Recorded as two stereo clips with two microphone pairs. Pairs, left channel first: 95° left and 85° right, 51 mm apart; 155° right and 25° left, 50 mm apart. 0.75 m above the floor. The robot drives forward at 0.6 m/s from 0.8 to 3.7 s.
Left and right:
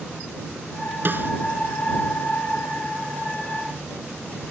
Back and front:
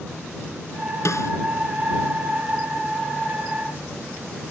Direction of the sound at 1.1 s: 135° right.